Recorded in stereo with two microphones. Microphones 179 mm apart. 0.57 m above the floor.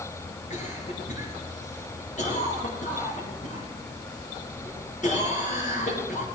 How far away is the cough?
About 6 m.